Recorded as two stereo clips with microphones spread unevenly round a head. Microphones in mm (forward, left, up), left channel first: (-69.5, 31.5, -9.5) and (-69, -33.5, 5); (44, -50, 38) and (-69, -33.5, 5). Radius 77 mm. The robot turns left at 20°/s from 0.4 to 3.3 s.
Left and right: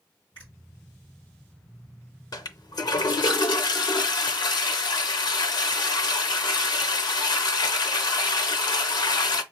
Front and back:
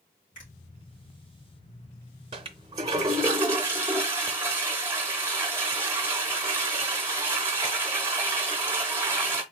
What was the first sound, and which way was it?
A finger snap, 25° left.